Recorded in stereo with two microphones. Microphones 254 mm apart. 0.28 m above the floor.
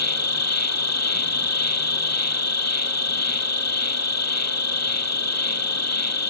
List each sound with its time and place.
0.0 s an insect: 90° left